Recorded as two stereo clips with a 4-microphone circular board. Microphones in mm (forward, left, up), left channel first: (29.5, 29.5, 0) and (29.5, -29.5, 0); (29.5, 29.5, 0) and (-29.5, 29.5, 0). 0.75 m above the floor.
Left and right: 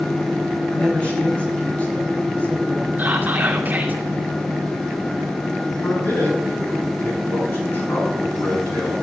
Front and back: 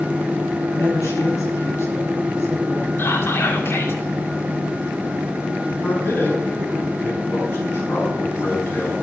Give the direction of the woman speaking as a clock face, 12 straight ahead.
11 o'clock.